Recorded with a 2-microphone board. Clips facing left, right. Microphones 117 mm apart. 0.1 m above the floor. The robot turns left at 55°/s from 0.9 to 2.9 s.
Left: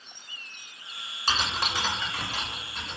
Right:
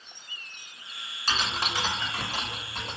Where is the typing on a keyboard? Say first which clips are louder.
Left 1 dB; 20° left (ahead or behind), 1.3 m; by 3.0 s 65° right (ahead or behind), 1.3 m.